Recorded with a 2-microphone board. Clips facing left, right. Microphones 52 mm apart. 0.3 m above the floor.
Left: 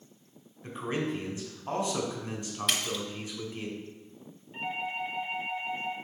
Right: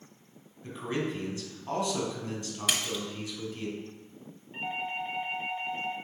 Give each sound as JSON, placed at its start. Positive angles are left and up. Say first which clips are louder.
{"t": 0.6, "sound": "a man speaking", "louder": "even", "side_deg": 20, "distance_m": 2.0}
{"t": 2.7, "sound": "a splash", "louder": "even", "side_deg": -5, "distance_m": 1.0}
{"t": 4.5, "sound": "a doorbell", "louder": "even", "side_deg": -15, "distance_m": 1.5}